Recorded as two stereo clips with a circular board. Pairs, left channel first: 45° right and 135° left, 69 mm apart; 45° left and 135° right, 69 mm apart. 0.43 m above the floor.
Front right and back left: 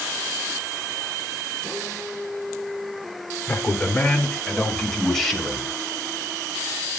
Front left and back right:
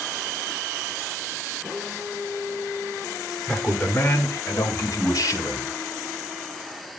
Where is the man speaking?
Straight ahead, 1.3 m; by 5.7 s 40° left, 2.5 m.